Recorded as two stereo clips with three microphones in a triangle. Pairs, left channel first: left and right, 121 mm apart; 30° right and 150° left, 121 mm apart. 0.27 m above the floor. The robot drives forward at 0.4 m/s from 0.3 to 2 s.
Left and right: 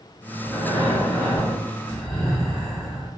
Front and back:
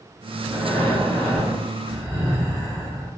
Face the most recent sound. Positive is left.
turn(degrees=135)